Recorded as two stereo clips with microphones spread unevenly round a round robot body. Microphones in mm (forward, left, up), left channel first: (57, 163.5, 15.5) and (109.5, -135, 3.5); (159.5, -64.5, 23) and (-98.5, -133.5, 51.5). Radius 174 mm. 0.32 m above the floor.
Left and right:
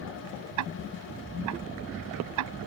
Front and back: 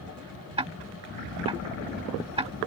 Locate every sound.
0.6 s ticking: 95° right